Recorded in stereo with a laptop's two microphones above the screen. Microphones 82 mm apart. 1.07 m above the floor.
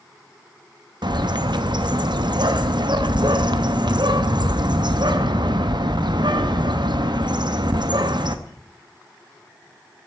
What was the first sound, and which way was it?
A bird, 70° right (ahead or behind).